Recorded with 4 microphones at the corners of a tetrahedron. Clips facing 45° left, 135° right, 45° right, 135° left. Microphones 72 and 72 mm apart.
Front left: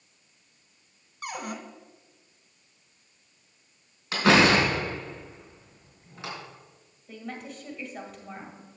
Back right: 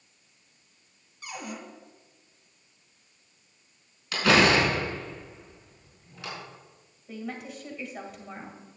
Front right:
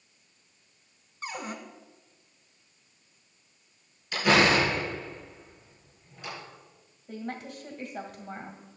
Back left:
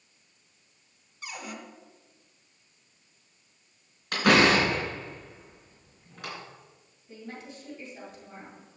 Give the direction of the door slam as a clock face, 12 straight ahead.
8 o'clock.